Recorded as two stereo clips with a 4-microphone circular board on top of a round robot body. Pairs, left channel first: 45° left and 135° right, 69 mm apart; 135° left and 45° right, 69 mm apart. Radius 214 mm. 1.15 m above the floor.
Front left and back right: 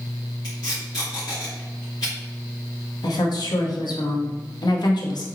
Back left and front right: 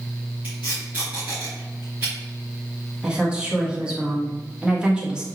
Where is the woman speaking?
30° left, 1.3 m.